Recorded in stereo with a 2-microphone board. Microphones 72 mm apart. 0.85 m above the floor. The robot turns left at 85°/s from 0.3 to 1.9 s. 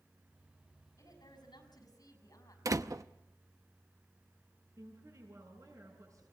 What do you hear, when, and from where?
1.0 s a woman speaking: 130° left, 5.5 m; by 2.5 s 55° left, 5.5 m
2.6 s a door slam: 50° right (ahead or behind), 0.7 m
4.8 s a woman speaking: 50° right (ahead or behind), 7 m